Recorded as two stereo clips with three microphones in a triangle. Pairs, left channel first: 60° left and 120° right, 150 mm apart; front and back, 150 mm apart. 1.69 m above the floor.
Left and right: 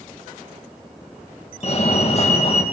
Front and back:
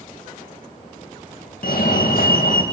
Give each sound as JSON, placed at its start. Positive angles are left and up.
{"t": 1.6, "sound": "a fire alarm", "azimuth_deg": 15, "distance_m": 3.5}